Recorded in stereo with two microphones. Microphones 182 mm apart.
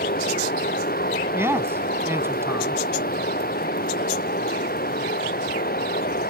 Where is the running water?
55° left (ahead or behind).